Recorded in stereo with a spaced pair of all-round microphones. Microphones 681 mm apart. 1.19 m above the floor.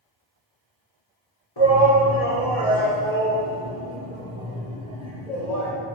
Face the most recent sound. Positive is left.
turn(degrees=75)  # may be behind; listen again after turning